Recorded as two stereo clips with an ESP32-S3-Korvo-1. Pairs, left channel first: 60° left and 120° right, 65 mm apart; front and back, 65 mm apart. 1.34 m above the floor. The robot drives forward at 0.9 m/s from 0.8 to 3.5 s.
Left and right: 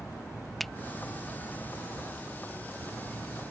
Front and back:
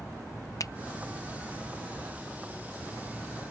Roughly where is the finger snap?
Ahead right.